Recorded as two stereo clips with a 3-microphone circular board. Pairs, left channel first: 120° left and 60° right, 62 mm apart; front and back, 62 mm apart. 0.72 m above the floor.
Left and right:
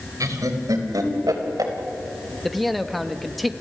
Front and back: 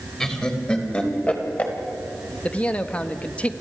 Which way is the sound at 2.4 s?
30° left.